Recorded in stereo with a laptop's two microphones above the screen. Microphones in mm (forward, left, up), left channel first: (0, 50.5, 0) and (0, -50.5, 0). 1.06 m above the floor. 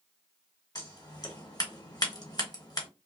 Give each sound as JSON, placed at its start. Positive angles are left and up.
{"t": 0.8, "sound": "scissors", "side_deg": 40, "distance_m": 1.2}